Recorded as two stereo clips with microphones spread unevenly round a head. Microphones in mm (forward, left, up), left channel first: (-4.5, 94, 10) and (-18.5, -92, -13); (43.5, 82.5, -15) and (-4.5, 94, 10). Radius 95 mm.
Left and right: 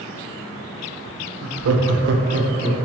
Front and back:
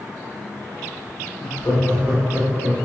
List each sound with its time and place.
1.4 s laughter: 70° right, 0.5 m; by 2.9 s 165° right, 0.9 m